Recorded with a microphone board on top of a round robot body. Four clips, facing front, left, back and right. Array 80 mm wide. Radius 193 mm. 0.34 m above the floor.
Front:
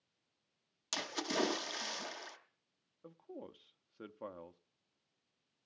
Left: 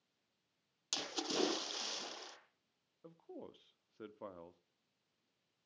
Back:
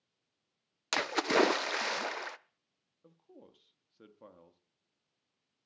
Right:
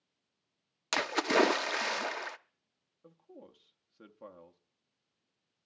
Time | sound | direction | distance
0.9 | a splash | 135° right | 0.8 m
3.0 | a man speaking | 20° left | 0.9 m